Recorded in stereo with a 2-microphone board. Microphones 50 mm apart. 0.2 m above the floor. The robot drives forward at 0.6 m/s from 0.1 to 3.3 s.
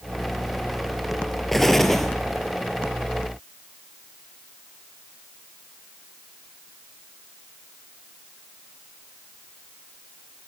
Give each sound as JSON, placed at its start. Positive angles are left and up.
{"t": 1.5, "sound": "an explosion", "side_deg": 5, "distance_m": 1.5}